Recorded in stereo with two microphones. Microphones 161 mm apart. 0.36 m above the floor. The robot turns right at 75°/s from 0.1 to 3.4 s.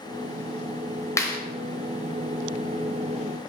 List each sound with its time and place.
1.2 s a clap: 20° left (ahead or behind), 1.1 m; by 1.4 s 30° left (ahead or behind), 1.1 m